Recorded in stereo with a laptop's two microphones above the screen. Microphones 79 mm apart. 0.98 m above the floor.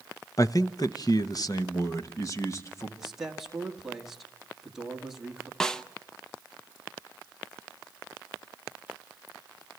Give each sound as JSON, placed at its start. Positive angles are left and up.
{"t": 0.4, "sound": "a man speaking", "side_deg": 45, "distance_m": 0.7}
{"t": 3.0, "sound": "a man speaking", "side_deg": -5, "distance_m": 1.7}
{"t": 5.6, "sound": "a snare drum", "side_deg": 10, "distance_m": 0.6}